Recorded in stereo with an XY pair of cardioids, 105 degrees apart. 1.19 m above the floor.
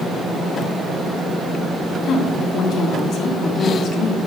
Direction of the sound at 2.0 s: 65° left.